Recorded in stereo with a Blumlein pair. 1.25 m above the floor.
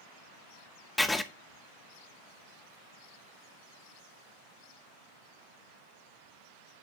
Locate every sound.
1.0 s writing: 5° left, 0.6 m